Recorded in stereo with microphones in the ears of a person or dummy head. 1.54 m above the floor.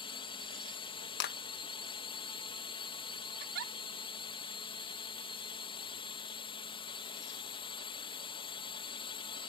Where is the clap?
60° left (ahead or behind).